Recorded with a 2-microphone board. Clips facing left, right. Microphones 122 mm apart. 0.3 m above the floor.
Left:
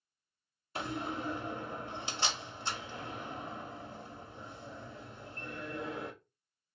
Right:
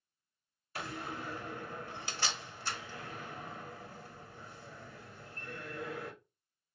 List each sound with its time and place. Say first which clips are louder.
0.8 s a door slam: left 4 dB; 20° left (ahead or behind), 0.6 m